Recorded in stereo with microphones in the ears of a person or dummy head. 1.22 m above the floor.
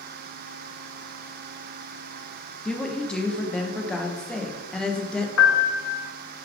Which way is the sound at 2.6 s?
Centre (ahead or behind).